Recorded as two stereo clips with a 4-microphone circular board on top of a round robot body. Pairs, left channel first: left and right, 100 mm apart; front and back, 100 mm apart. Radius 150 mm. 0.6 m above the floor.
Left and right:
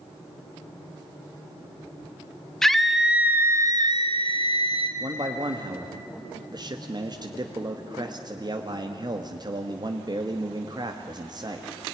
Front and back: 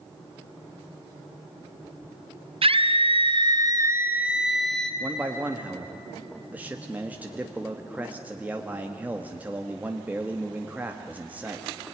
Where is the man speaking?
110° right, 1.5 m.